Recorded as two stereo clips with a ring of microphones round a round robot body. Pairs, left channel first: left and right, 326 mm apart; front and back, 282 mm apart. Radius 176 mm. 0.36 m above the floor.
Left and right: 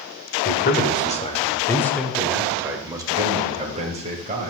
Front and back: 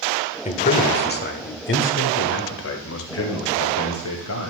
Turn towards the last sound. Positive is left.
turn(degrees=-30)